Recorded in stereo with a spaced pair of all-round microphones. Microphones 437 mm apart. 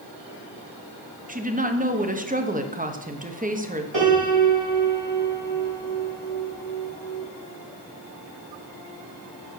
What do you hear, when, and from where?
1.3 s a woman speaking: 20° right (ahead or behind), 0.9 m
3.9 s a piano: 85° right, 3 m